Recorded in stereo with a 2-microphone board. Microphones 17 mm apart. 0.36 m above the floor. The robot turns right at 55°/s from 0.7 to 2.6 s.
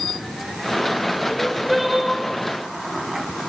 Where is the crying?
170° left, 3 m; by 2.2 s 140° right, 3 m.